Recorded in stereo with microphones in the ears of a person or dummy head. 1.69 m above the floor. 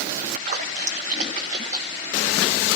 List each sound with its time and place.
0.2 s a splash: 40° right (ahead or behind), 1.4 m